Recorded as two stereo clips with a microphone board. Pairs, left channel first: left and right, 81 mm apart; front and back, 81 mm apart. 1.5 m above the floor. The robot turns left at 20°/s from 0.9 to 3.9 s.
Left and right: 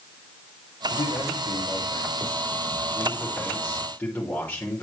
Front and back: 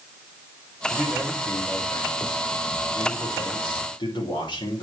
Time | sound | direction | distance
0.9 | a man speaking | 80° left | 6.5 m